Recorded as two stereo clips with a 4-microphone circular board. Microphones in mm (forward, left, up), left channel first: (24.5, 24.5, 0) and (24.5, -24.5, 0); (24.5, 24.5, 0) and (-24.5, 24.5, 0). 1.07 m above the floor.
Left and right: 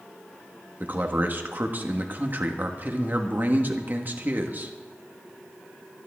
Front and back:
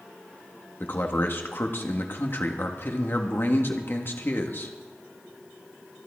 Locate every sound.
0.8 s a man speaking: 40° right, 1.6 m